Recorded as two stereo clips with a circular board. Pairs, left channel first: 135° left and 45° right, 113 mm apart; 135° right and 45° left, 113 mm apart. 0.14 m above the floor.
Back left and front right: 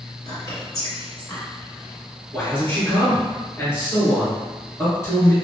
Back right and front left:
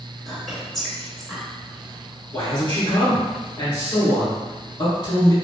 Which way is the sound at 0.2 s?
140° left.